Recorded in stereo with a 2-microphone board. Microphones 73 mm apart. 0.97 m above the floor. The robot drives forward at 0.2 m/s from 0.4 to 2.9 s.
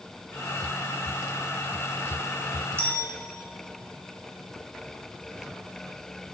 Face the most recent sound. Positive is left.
turn(degrees=-35)  # may be behind; listen again after turning